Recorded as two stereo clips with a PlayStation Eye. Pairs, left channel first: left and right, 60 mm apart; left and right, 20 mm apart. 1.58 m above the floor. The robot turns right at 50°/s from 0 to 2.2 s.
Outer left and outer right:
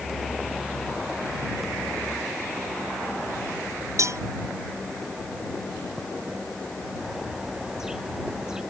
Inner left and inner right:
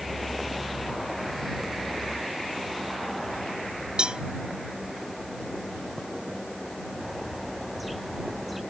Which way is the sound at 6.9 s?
10° right (ahead or behind).